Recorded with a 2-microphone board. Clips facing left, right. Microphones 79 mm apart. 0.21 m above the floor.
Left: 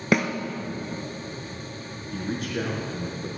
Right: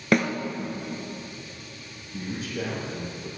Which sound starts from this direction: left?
A man speaking, at 2.1 s.